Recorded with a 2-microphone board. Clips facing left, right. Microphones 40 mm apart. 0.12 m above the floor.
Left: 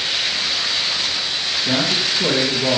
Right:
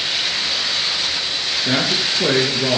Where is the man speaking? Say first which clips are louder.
Even; 35° right (ahead or behind), 1.3 m.